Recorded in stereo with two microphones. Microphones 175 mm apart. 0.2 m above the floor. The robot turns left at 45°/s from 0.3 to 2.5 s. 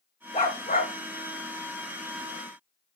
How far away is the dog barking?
About 5 m.